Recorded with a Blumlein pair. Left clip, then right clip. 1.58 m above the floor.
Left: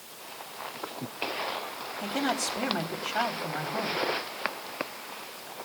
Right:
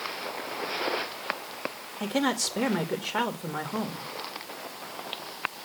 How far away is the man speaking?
About 2 m.